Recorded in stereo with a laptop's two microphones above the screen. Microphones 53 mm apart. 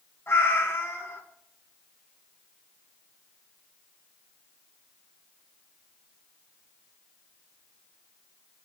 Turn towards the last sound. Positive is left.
turn(degrees=50)  # may be behind; listen again after turning